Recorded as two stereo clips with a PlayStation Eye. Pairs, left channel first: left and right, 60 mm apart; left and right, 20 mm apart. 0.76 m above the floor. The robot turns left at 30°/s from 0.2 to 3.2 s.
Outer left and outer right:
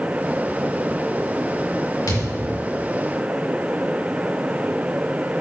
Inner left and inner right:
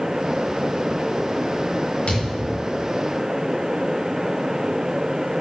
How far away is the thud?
About 4 m.